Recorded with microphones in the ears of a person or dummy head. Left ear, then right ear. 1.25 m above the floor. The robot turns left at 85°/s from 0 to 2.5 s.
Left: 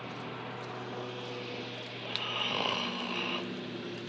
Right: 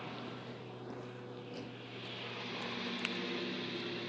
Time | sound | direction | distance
0.0 | a lawn mower | 175° right | ?
2.0 | snoring | 135° left | ?